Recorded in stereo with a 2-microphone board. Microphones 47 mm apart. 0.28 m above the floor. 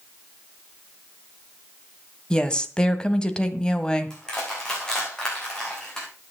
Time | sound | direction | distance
2.3 | a woman speaking | 20° left (ahead or behind) | 1.4 m
4.1 | crushing | 15° left (ahead or behind) | 6.5 m